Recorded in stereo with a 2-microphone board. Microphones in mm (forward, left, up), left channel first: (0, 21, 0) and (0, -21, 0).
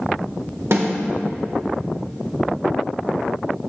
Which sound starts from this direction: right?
A snare drum, at 0.7 s.